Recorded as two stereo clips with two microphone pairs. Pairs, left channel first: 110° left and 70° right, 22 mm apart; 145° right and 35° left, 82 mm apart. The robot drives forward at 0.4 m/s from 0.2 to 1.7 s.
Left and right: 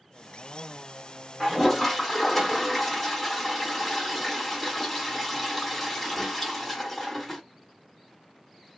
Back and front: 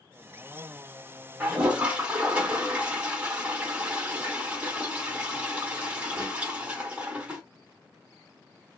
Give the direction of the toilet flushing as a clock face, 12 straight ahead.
10 o'clock.